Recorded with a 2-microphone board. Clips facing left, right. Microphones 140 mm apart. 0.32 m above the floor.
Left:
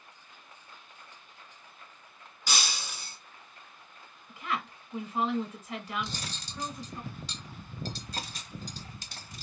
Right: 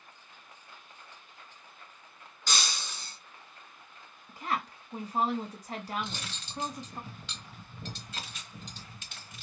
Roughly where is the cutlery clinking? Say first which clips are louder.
Left 1 dB; left.